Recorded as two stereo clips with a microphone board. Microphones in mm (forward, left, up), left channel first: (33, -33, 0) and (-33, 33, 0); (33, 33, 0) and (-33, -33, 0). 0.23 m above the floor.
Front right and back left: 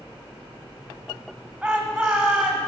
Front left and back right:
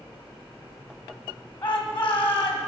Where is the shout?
85° left, 1.0 m.